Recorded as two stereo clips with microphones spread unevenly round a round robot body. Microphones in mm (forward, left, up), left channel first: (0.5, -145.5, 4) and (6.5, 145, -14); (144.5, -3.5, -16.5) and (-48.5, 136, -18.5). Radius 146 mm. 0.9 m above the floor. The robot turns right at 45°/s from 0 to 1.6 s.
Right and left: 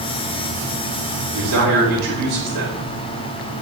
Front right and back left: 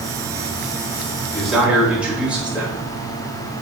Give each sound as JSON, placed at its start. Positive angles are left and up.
{"t": 1.3, "sound": "a man speaking", "azimuth_deg": 50, "distance_m": 4.5}